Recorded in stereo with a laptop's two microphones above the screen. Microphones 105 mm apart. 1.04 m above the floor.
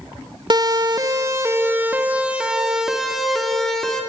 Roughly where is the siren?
Right.